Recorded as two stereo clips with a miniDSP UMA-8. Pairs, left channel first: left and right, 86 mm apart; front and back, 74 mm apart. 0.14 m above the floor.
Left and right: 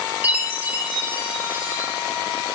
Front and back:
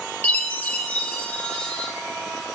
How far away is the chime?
About 0.5 m.